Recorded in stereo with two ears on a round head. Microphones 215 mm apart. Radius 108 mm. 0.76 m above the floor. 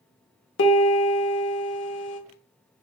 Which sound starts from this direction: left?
A piano, at 0.6 s.